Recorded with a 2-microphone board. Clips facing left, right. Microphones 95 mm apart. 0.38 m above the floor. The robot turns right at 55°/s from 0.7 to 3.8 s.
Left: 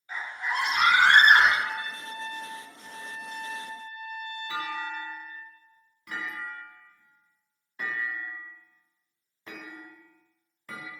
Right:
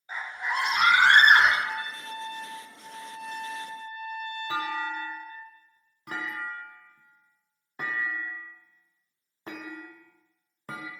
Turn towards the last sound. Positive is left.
turn(degrees=-40)  # may be behind; listen again after turning